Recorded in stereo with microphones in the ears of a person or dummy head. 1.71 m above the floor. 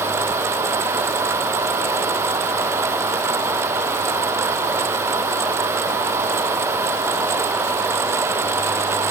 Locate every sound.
Only background noise.